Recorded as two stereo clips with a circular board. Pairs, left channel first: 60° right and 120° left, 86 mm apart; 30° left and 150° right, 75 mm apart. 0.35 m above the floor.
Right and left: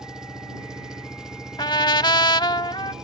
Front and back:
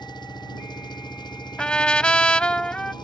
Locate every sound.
0.0 s an engine running: 40° left
1.6 s a trumpet: 45° right